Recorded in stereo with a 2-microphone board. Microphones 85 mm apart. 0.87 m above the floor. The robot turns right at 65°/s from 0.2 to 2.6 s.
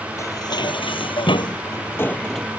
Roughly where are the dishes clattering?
Ahead left.